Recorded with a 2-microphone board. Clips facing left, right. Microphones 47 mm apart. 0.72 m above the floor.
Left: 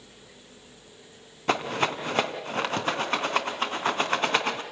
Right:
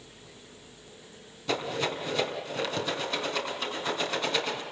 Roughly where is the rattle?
Left.